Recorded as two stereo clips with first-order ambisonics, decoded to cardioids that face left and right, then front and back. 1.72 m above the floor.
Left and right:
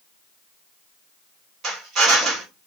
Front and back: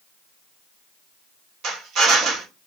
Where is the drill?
140° right, 3 m.